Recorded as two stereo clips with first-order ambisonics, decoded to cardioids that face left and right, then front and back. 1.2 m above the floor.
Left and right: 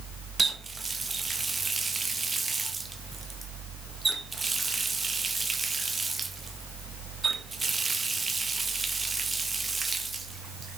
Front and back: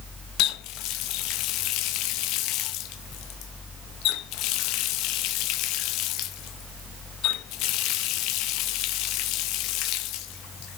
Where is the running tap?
15° right, 0.7 m.